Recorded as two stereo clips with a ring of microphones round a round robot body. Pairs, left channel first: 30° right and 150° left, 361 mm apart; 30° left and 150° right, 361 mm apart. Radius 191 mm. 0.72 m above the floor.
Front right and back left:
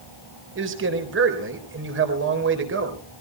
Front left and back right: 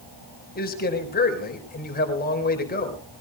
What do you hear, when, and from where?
0.6 s a man speaking: 95° left, 3.5 m